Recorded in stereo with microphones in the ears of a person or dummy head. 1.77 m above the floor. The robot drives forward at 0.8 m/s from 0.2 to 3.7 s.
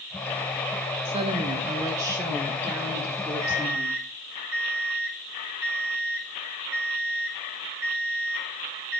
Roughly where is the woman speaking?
Right.